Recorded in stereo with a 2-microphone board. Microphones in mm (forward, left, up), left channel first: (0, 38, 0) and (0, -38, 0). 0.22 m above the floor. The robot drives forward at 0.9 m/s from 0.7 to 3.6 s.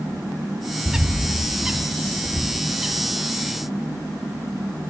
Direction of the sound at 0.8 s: 10° right (ahead or behind).